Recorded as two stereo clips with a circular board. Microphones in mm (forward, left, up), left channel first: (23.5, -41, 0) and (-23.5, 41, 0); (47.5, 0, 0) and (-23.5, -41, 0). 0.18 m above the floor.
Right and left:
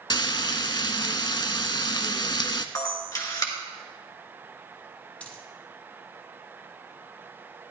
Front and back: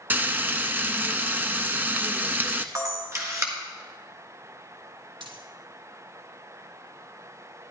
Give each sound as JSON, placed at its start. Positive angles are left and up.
{"t": 0.1, "sound": "frying", "azimuth_deg": -90, "distance_m": 0.5}
{"t": 2.8, "sound": "a camera shutter", "azimuth_deg": -105, "distance_m": 1.9}
{"t": 5.2, "sound": "a dropped coin", "azimuth_deg": -135, "distance_m": 1.6}